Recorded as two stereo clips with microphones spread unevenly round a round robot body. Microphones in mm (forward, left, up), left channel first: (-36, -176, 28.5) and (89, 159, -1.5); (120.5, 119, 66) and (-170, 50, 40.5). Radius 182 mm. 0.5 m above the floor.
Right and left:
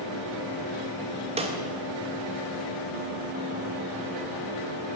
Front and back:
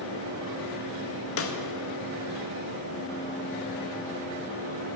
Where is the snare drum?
10° left, 1.7 m.